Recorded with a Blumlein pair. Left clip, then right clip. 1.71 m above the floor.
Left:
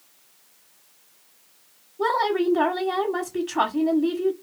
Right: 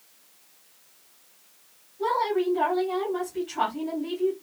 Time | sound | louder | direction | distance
2.0 | a woman speaking | left 3 dB | 35° left | 0.9 m